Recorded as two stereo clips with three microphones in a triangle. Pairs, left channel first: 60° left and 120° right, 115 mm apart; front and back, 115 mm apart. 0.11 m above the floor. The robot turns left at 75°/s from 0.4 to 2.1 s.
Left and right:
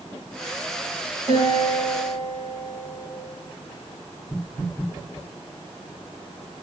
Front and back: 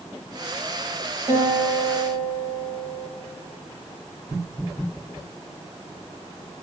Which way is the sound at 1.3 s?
145° right.